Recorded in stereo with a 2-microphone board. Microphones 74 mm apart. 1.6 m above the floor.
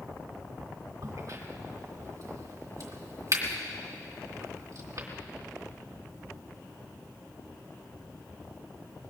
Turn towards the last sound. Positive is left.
turn(degrees=-55)  # may be behind; listen again after turning